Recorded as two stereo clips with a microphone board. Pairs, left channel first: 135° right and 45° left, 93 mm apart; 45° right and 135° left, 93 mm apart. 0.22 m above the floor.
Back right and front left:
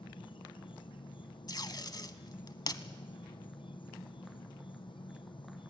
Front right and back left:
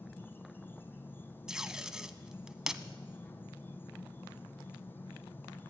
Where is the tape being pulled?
145° right, 1.0 m.